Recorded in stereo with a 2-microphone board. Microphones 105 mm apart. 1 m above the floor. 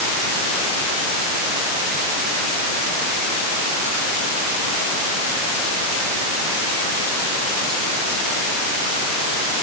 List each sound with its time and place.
Only background noise.